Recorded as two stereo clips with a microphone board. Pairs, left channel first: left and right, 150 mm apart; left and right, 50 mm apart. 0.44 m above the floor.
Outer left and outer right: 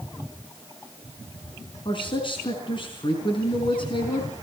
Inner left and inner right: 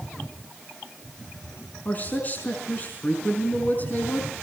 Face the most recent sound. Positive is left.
turn(degrees=35)  # may be behind; listen again after turning